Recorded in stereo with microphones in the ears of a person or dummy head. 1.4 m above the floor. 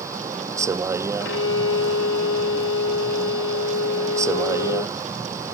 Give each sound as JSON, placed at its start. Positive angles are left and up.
{"t": 0.0, "sound": "a vehicle", "side_deg": -15}
{"t": 1.2, "sound": "a violin", "side_deg": 70}